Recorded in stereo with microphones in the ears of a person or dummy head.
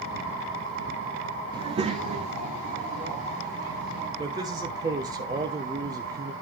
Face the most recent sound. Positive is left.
turn(degrees=-20)  # may be behind; listen again after turning